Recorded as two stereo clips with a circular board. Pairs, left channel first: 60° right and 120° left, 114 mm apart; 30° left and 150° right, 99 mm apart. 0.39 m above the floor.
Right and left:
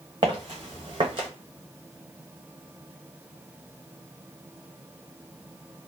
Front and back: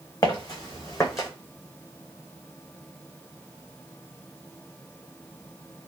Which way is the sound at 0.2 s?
75° left.